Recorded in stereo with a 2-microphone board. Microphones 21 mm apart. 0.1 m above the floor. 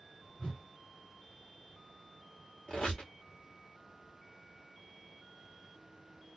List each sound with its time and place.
0.4 s a whoosh: 60° left (ahead or behind), 1.8 m
2.7 s a squeak: 80° left, 1.5 m